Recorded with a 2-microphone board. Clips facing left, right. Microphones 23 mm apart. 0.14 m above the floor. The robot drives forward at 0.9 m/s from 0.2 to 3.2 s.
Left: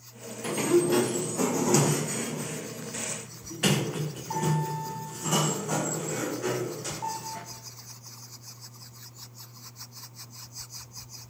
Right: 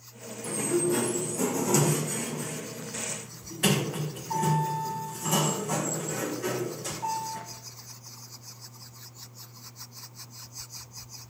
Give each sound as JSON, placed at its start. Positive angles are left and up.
{"t": 0.4, "sound": "a sliding door", "side_deg": 40, "distance_m": 1.3}